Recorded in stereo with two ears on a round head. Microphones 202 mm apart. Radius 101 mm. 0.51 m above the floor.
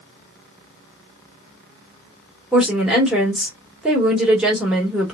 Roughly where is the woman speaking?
Centre.